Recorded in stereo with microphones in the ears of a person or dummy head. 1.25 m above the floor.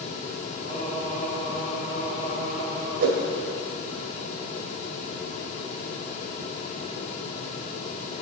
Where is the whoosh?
55° right (ahead or behind), 1.6 m.